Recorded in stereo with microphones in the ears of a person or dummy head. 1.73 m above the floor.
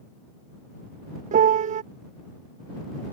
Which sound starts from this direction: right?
A piano, at 1.3 s.